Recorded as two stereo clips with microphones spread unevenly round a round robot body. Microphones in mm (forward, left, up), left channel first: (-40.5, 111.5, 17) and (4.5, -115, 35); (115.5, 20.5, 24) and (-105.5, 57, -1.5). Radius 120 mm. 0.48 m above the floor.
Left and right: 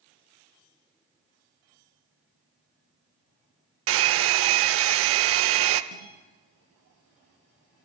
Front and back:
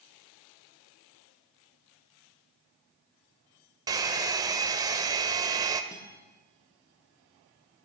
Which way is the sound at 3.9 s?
115° right.